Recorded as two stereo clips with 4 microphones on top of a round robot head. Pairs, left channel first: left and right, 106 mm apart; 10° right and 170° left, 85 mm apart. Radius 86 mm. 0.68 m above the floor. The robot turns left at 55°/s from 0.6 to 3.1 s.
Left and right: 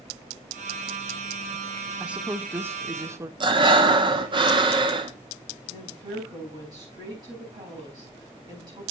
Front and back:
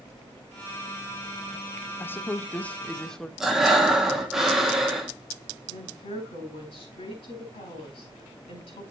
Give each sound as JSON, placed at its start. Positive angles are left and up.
{"t": 2.0, "sound": "a woman speaking", "azimuth_deg": -20, "distance_m": 0.8}
{"t": 3.4, "sound": "breathing", "azimuth_deg": -105, "distance_m": 1.5}
{"t": 5.7, "sound": "a woman speaking", "azimuth_deg": -30, "distance_m": 5.0}